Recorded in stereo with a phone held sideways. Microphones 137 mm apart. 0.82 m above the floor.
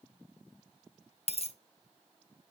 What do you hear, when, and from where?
1.3 s a dropped coin: 50° left (ahead or behind), 0.8 m